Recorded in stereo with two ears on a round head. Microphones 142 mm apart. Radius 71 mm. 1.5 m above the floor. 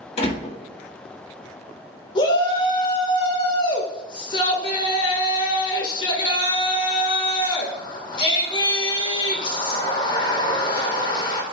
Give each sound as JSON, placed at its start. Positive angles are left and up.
{"t": 0.2, "sound": "a door slam", "side_deg": 40, "distance_m": 1.6}
{"t": 2.1, "sound": "a shout", "side_deg": 30, "distance_m": 1.6}